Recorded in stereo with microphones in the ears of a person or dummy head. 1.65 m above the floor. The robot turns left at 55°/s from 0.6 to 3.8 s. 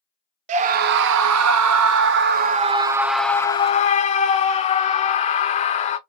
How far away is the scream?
About 0.6 m.